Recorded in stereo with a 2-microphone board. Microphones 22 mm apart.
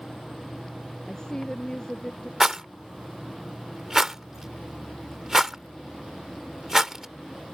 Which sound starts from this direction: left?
A woman speaking, at 1.1 s.